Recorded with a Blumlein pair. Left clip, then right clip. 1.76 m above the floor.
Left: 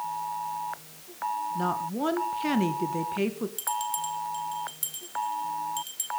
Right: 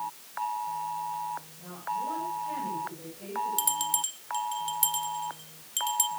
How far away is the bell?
About 0.9 m.